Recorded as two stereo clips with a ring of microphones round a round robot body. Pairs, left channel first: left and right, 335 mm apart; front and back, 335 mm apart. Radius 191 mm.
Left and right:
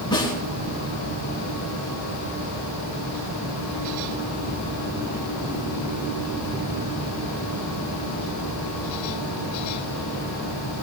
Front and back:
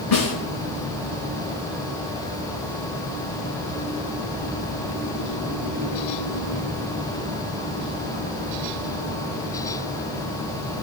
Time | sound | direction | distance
0.1 | a snare drum | 10° left | 8 m